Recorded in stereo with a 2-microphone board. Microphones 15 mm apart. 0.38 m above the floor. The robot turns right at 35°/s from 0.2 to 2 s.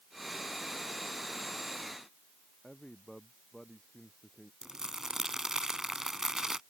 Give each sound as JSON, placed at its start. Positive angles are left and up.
{"t": 2.6, "sound": "a man speaking", "side_deg": 25}
{"t": 4.6, "sound": "crumpling", "side_deg": -40}